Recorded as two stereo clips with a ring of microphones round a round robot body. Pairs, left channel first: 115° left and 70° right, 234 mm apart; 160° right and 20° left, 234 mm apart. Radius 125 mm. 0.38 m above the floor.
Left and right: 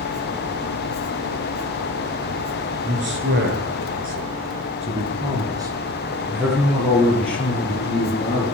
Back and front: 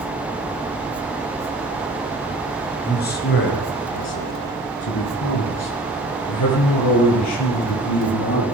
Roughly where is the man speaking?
Right.